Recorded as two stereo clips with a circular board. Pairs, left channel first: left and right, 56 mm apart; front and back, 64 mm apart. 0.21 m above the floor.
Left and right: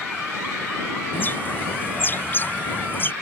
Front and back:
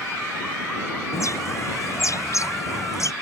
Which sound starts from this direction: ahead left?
A bird, at 1.1 s.